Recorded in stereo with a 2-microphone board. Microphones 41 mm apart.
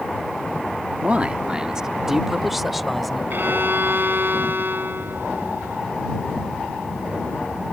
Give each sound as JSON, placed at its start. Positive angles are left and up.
{"t": 1.0, "sound": "a man speaking", "side_deg": -35}
{"t": 3.3, "sound": "a violin", "side_deg": -55}